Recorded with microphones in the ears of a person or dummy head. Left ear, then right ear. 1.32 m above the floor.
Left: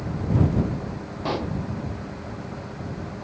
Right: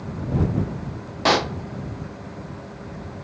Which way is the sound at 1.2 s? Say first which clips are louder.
Right 9 dB; 65° right (ahead or behind).